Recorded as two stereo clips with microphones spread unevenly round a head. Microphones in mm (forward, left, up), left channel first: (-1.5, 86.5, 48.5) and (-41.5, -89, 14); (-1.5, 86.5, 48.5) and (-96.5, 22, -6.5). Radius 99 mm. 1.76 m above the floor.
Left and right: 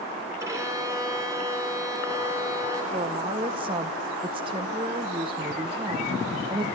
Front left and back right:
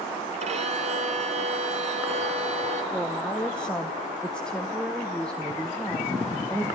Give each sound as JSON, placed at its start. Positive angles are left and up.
{"t": 0.4, "sound": "a violin", "azimuth_deg": 180, "distance_m": 3.0}
{"t": 2.9, "sound": "a woman speaking", "azimuth_deg": -35, "distance_m": 1.1}